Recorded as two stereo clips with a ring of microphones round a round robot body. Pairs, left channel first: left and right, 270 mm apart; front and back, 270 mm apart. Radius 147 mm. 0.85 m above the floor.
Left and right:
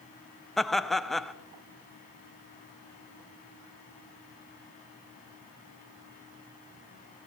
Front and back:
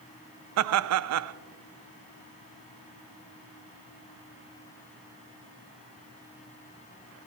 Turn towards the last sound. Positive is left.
turn(degrees=180)